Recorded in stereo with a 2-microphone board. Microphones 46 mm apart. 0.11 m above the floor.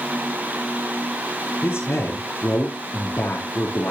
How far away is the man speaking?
About 2.5 m.